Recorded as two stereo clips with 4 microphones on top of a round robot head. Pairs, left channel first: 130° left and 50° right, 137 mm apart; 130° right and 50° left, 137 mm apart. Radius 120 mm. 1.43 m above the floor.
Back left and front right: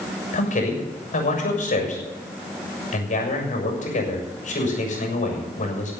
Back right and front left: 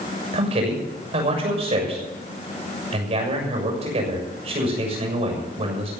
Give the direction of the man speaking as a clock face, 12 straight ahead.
9 o'clock.